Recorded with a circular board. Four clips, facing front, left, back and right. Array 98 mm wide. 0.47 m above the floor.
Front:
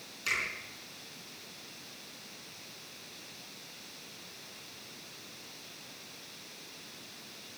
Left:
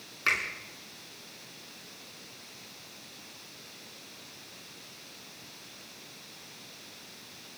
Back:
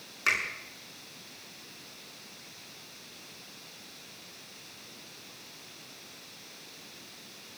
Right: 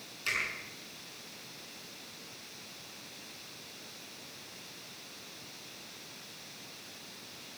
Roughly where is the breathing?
No breathing in this recording.